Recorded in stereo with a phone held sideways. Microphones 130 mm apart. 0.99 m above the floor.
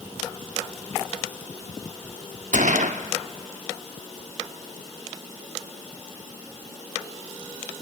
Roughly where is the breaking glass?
I don't hear breaking glass.